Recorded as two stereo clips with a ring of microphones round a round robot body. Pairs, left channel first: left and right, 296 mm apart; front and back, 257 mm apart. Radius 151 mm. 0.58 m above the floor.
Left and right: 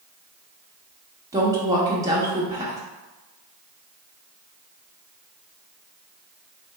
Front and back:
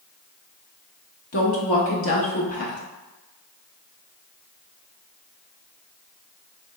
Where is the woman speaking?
15° right, 1.1 m.